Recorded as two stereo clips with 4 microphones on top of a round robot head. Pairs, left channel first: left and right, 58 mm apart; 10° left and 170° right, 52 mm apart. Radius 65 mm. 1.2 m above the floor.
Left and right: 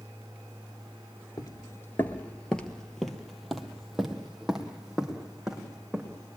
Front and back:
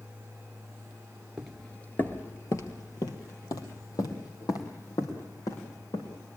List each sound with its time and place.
1.4 s footsteps: 105° left, 1.3 m; by 6.2 s 10° right, 5.5 m